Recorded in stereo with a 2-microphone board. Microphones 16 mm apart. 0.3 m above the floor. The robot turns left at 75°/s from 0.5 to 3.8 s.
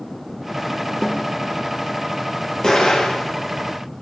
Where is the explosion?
130° left, 4 m; by 3.3 s 80° left, 4 m.